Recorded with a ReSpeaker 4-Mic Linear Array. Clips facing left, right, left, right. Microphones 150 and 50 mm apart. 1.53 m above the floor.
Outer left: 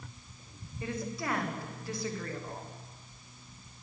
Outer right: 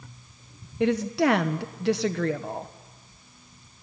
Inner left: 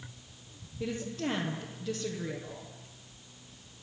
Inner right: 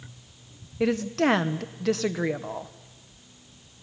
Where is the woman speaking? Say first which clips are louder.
Outer right 14 dB, inner right 11 dB; 80° right, 1.4 m.